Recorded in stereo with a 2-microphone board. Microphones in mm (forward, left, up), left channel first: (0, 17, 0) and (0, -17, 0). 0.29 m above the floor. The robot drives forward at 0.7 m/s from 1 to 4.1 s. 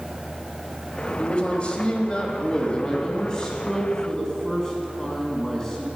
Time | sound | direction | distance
1.2 | a man speaking | 30° left (ahead or behind) | 1.3 m